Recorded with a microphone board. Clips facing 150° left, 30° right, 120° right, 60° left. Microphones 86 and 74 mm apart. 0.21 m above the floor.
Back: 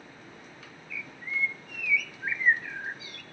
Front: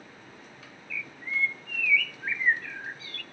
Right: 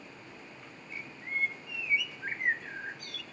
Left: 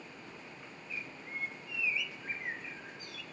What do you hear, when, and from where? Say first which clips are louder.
0.9 s a bird: front 2 dB, right 6 dB; 140° right, 0.7 m